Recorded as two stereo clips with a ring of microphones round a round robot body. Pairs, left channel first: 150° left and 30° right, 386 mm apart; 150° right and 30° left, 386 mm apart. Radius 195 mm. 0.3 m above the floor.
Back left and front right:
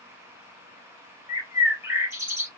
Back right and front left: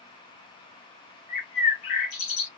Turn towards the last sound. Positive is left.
turn(degrees=-115)